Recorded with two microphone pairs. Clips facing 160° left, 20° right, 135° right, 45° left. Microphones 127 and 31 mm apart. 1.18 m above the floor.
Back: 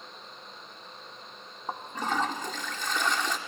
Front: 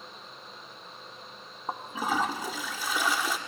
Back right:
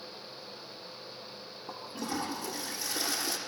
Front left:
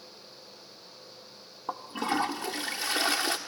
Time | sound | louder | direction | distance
1.7 | a toilet flushing | front 1 dB, front left 7 dB | 60° left | 1.4 m